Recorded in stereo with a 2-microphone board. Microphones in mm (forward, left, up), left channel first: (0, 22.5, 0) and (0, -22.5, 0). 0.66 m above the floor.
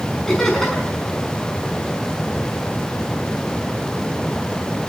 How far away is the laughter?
About 5.5 m.